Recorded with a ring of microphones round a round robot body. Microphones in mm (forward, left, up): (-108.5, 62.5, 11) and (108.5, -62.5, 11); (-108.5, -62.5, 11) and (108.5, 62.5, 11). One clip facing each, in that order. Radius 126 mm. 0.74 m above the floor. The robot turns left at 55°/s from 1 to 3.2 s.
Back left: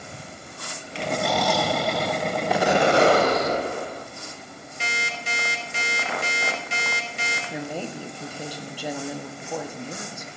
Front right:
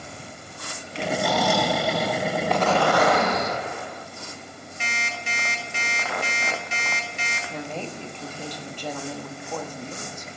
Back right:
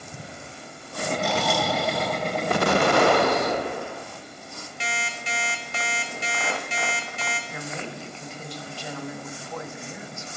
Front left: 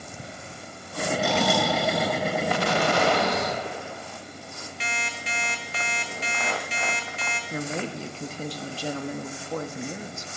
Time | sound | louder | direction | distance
1.2 | snoring | front right 1 dB, front left 2 dB | 65° left | 6 m
2.5 | an explosion | back left 3 dB, back right 7 dB | 125° right | 0.5 m
4.8 | an alarm clock | back left 2 dB, back right 2 dB | 155° right | 2.5 m
7.5 | a woman speaking | back left 1 dB, front left 5 dB | 70° left | 1.1 m